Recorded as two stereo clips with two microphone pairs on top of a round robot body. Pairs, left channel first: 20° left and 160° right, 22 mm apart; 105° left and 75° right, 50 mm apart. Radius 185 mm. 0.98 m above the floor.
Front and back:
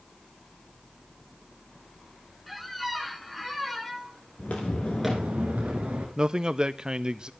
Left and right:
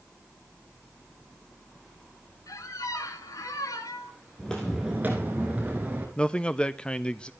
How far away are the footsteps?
About 1.0 m.